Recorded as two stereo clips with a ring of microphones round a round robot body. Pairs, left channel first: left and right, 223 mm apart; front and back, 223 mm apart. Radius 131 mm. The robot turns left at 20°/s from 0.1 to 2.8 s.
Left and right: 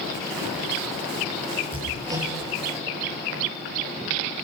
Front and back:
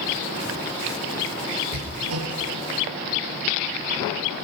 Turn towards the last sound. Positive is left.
turn(degrees=180)